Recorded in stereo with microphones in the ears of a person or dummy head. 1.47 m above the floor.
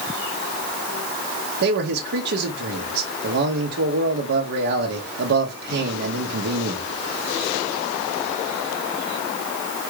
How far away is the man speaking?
About 0.9 m.